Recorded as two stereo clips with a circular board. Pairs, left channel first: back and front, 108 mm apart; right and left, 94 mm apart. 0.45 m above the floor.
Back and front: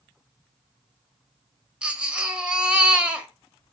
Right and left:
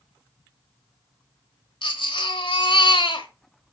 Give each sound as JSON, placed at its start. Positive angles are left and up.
{"t": 1.8, "sound": "a baby crying", "azimuth_deg": -80, "distance_m": 1.4}